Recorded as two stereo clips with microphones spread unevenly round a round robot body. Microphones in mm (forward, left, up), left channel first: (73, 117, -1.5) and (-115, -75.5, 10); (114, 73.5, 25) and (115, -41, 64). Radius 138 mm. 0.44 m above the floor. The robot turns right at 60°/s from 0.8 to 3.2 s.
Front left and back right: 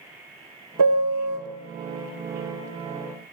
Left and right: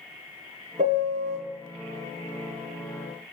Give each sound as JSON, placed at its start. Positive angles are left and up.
{"t": 0.8, "sound": "a piano", "azimuth_deg": -115, "distance_m": 1.0}